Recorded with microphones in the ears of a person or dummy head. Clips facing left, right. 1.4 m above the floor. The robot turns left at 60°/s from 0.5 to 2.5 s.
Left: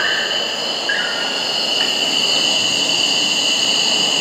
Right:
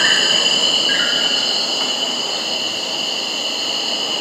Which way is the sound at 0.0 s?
125° right.